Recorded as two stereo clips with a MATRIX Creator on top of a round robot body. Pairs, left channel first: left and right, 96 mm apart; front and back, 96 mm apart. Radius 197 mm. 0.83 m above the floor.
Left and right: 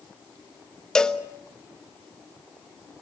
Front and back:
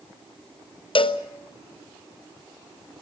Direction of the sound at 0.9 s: 10° left.